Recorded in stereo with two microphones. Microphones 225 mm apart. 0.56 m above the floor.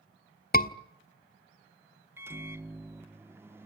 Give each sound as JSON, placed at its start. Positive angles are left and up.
{"t": 0.5, "sound": "a scream", "side_deg": 40, "distance_m": 1.4}
{"t": 2.2, "sound": "a microwave", "side_deg": -10, "distance_m": 0.5}